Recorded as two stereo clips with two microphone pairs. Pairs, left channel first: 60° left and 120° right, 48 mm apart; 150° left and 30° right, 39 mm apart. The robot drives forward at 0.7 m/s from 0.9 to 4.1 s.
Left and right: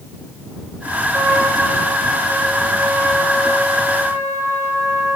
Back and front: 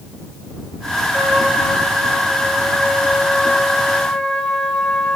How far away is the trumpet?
About 3.5 m.